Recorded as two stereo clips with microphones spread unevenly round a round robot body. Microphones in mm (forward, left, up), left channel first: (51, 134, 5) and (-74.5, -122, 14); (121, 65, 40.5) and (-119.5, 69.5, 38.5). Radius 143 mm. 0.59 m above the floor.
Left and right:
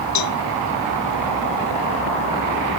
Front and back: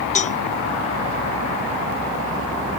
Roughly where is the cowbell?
Ahead left.